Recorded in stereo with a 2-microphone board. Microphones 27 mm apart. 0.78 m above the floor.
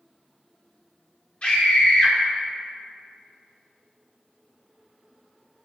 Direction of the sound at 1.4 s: 35° left (ahead or behind).